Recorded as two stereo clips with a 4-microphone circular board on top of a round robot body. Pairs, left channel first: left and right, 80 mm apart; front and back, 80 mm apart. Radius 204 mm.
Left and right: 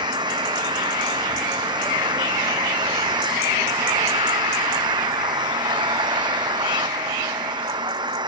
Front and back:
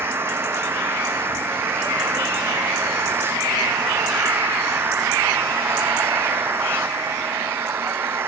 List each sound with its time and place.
0.0 s an engine running: 120° right